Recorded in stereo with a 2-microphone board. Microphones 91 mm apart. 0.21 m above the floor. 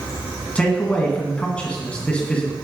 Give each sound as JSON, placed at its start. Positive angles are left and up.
{"t": 0.6, "sound": "a man speaking", "side_deg": 15, "distance_m": 1.9}